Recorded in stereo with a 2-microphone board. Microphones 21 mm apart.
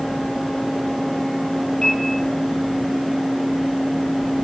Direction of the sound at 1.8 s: 45° left (ahead or behind).